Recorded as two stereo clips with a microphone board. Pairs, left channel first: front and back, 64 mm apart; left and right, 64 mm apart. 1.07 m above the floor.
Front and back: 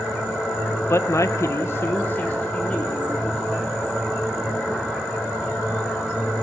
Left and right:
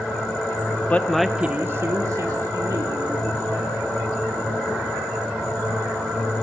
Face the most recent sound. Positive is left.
turn(degrees=-75)